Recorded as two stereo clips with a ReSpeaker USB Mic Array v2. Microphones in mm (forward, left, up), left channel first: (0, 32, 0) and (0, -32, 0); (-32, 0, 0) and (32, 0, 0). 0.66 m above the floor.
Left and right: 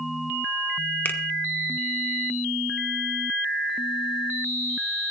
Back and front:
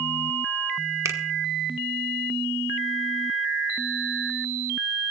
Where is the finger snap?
30° left, 1.2 m.